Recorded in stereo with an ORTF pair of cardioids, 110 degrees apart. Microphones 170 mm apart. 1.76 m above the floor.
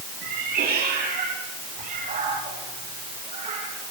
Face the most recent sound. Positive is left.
turn(degrees=-40)